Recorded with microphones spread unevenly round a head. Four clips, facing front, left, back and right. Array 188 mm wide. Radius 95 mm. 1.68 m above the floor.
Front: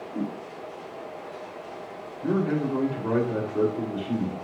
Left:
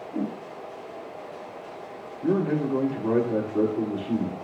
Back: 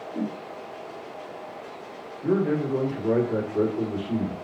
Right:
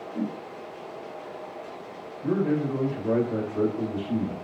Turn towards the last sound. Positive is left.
turn(degrees=75)